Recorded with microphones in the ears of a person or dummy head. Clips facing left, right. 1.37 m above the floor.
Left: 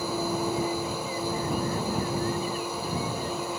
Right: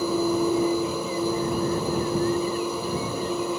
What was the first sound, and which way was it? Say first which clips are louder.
A machine running: right 6 dB; 80° right.